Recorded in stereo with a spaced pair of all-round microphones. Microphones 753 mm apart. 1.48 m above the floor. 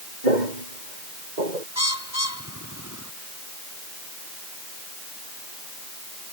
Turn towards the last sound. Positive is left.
turn(degrees=20)  # may be behind; listen again after turning